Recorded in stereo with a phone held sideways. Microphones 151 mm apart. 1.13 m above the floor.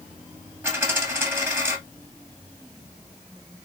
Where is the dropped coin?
15° right (ahead or behind), 2 m.